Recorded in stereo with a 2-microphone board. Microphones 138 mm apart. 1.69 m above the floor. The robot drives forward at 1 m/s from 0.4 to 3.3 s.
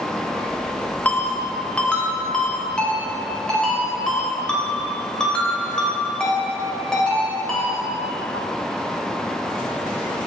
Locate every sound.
1.1 s a ringtone: 10° left (ahead or behind), 1.6 m; by 7.7 s 5° left (ahead or behind), 3.5 m